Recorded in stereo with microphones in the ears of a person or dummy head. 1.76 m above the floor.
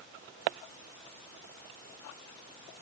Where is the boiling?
No boiling in this recording.